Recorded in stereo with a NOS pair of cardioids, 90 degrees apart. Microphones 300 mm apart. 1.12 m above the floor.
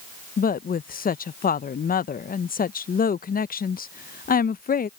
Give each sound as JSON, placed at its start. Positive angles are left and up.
{"t": 0.4, "sound": "a woman speaking", "azimuth_deg": 30}